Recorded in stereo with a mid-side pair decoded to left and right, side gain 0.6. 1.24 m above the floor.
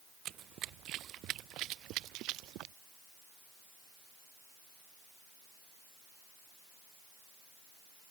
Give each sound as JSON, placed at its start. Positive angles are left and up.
{"t": 0.2, "sound": "running footsteps", "azimuth_deg": -55}